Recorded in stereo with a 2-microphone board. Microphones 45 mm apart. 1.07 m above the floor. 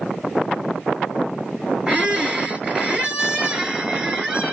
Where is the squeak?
20° right (ahead or behind), 1.1 m.